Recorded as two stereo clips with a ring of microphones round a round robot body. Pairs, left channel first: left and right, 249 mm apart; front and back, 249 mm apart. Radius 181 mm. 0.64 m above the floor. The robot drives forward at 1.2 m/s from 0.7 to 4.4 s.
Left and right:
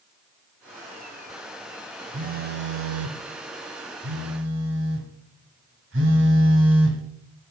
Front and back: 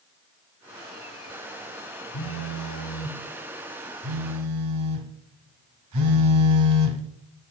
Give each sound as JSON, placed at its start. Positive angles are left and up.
{"t": 2.1, "sound": "a phone buzzing", "azimuth_deg": -30, "distance_m": 1.6}